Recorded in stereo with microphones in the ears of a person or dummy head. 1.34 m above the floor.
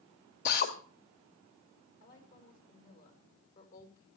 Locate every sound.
0.5 s a drill: 50° left (ahead or behind), 1.9 m
2.0 s a woman speaking: 60° left (ahead or behind), 5 m